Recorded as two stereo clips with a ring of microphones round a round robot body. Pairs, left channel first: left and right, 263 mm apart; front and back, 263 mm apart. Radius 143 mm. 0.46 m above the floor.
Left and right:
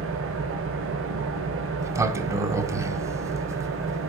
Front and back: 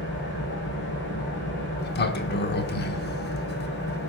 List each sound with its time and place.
0.0 s an engine running: 50° right, 1.7 m
1.8 s a sliding door: 15° right, 0.7 m